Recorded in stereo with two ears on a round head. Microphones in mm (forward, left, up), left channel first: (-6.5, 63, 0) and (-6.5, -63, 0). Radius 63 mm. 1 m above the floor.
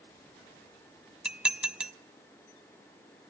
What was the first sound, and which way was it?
Dishes clattering, 5° right (ahead or behind).